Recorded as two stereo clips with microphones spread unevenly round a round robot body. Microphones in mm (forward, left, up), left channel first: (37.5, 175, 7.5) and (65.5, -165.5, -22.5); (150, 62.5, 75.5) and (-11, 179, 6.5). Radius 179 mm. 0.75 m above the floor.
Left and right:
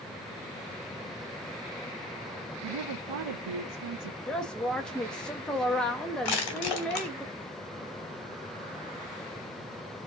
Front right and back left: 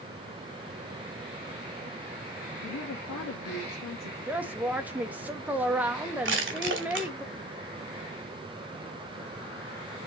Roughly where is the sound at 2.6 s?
Ahead right.